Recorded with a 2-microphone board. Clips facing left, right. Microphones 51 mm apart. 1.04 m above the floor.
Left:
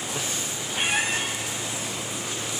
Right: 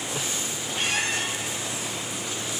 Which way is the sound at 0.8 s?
20° left (ahead or behind).